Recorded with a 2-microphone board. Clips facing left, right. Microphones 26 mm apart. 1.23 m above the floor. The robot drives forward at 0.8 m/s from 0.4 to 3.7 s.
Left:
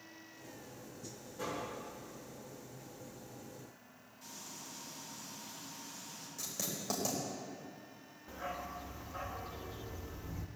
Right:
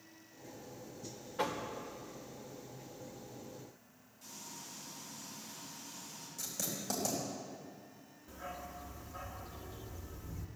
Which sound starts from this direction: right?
Knocking, at 1.4 s.